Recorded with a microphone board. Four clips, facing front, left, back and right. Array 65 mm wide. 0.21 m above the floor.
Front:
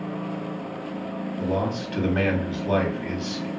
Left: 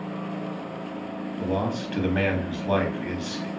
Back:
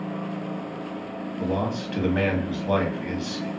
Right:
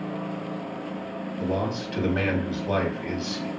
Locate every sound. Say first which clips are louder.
1.4 s a man speaking: left 1 dB, even; 105° left, 1.1 m